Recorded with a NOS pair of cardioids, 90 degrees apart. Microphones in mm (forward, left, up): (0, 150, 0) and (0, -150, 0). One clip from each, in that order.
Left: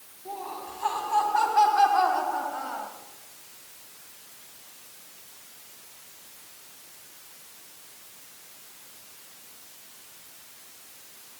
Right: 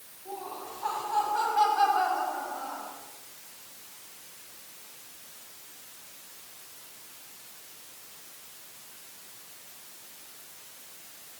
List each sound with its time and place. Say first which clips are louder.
0.2 s laughter: left 3 dB; 35° left, 6.5 m; by 2.9 s 50° left, 4 m